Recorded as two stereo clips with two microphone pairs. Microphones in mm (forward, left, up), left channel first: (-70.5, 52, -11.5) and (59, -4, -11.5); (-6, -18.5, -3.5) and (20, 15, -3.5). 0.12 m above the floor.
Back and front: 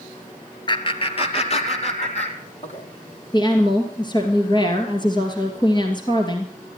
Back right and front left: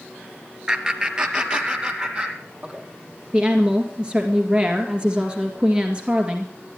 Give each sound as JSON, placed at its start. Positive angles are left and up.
{"t": 0.7, "sound": "laughter", "azimuth_deg": 115, "distance_m": 1.5}
{"t": 3.3, "sound": "a woman speaking", "azimuth_deg": 110, "distance_m": 2.0}